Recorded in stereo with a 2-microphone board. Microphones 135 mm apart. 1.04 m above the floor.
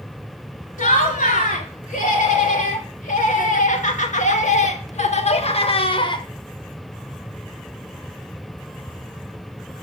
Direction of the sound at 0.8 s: 80° left.